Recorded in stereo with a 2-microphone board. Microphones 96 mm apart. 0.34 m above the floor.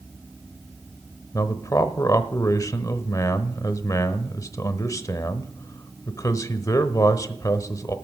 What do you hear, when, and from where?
1.3 s a man speaking: 35° left (ahead or behind), 1.0 m